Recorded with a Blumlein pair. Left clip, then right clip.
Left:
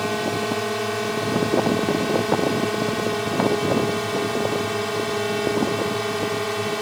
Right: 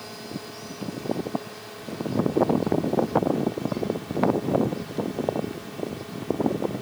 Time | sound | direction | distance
0.0 | a drone | 35° left | ?